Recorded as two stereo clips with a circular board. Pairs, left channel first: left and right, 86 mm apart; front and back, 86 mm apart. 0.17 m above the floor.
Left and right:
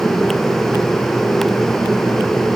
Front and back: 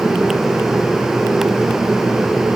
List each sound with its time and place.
Only background noise.